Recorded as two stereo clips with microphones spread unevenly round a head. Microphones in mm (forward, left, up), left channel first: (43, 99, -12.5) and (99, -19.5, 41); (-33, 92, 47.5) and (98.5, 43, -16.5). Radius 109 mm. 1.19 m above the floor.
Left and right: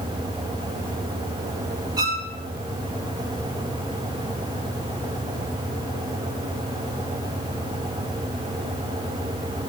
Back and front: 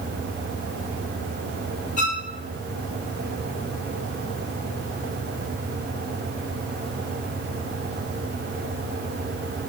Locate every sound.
2.0 s a violin: 140° right, 2.0 m